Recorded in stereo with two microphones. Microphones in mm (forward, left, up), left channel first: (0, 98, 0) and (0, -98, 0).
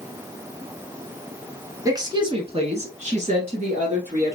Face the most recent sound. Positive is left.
turn(degrees=-40)  # may be behind; listen again after turning